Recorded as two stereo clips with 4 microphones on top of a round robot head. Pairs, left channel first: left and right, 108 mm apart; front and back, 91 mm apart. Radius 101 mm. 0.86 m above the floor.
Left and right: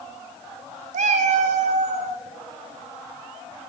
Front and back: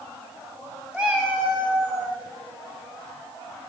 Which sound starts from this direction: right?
A cat meowing, at 0.9 s.